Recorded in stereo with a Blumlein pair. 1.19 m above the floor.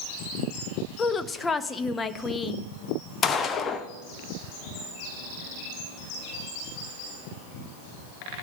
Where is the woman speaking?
15° left, 0.7 m.